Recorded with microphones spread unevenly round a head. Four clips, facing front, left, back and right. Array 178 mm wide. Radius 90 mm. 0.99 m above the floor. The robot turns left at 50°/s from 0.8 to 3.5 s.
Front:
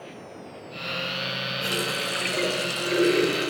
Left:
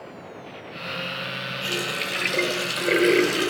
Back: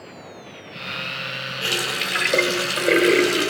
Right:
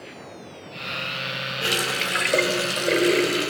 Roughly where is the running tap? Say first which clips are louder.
Right 4 dB, back 3 dB; right.